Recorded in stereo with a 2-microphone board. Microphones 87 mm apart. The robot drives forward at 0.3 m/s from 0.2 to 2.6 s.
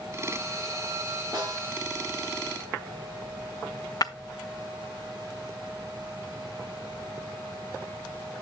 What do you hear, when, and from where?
1.3 s a snare drum: 45° right (ahead or behind), 7.5 m
4.0 s breaking glass: 45° left (ahead or behind), 0.6 m